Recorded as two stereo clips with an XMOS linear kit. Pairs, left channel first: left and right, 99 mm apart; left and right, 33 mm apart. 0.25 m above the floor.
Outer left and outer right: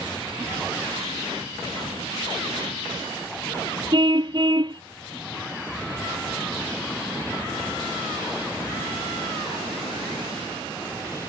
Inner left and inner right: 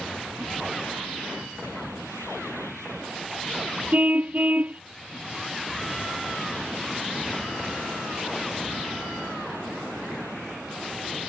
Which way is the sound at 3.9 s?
50° right (ahead or behind).